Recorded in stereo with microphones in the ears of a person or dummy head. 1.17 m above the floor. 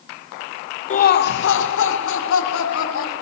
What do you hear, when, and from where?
0.9 s laughter: 40° left (ahead or behind), 0.7 m; by 3.1 s 80° left, 3.5 m